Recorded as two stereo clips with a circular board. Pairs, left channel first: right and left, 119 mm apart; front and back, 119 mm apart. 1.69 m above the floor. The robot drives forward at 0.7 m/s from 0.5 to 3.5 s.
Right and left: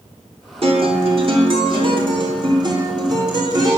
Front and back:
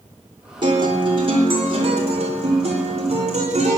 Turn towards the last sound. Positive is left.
turn(degrees=150)